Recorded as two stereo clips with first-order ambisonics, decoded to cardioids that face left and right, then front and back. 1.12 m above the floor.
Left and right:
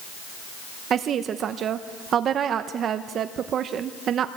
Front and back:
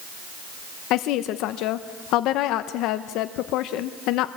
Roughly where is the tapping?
I don't hear tapping.